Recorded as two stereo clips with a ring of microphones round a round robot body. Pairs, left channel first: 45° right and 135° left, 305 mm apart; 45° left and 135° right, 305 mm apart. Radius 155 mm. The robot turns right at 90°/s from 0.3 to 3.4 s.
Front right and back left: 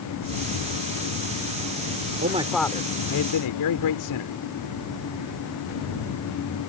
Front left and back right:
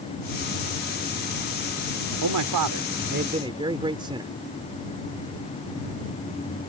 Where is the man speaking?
170° right; by 4.3 s 60° right.